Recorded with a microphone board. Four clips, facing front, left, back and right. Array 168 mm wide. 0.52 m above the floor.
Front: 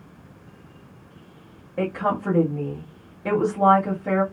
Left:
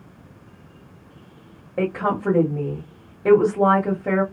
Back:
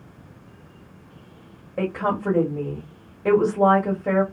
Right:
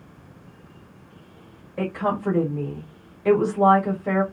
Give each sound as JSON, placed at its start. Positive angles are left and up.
{"t": 1.8, "sound": "a woman speaking", "azimuth_deg": 110, "distance_m": 1.5}